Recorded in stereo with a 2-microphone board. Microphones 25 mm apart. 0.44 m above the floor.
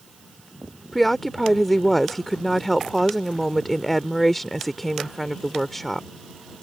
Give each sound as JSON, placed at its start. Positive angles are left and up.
{"t": 0.9, "sound": "a woman speaking", "side_deg": 10}